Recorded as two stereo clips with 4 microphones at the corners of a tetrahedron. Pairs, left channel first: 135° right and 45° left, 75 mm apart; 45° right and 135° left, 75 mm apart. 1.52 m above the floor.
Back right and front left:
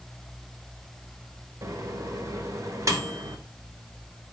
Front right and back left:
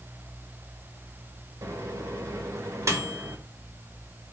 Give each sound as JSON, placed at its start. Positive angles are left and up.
{"t": 1.6, "sound": "a microwave", "azimuth_deg": 90, "distance_m": 1.2}